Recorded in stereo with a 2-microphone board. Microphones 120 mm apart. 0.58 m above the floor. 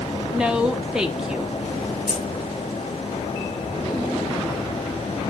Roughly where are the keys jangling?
Centre.